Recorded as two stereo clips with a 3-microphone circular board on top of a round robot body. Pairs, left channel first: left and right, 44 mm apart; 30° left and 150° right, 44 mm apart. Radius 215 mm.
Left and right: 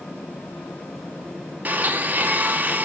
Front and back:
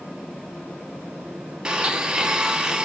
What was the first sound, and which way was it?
A blender, 90° right.